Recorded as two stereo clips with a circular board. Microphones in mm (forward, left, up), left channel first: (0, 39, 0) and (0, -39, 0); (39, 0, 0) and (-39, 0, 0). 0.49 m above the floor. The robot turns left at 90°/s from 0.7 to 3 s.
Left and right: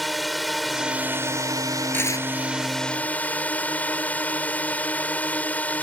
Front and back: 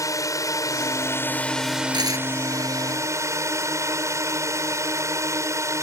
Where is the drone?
Straight ahead; by 5.8 s 150° left.